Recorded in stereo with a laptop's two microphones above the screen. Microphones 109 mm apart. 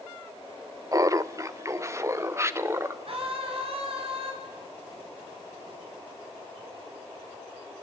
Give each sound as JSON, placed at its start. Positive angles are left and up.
{"t": 0.9, "sound": "laughter", "side_deg": -30, "distance_m": 0.9}
{"t": 3.0, "sound": "a scream", "side_deg": -60, "distance_m": 8.0}